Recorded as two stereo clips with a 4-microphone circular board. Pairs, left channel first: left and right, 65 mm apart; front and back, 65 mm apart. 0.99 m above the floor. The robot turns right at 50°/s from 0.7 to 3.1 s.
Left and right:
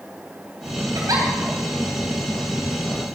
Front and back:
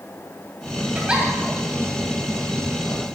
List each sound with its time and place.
0.9 s a giggle: 110° right, 3 m; by 1.3 s 95° right, 3 m